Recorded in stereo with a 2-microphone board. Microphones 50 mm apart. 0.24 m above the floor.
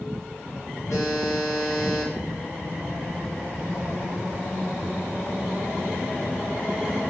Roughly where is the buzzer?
Left.